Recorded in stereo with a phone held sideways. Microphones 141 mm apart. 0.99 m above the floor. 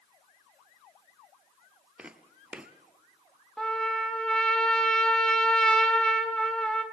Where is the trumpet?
5° left (ahead or behind), 1.5 m.